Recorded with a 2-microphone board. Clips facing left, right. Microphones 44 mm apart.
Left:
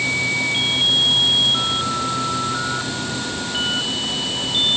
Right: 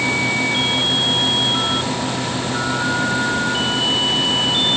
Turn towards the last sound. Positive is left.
No sound to turn to.